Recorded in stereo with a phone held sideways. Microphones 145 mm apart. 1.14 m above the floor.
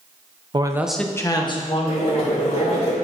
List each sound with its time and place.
0.5 s a man speaking: 35° right (ahead or behind), 0.6 m; by 2.9 s 50° left (ahead or behind), 2.5 m
1.9 s boiling: 50° left (ahead or behind), 3 m